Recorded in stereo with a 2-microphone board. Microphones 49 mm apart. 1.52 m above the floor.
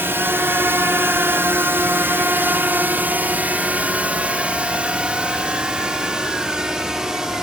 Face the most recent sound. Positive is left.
turn(degrees=-15)  # may be behind; listen again after turning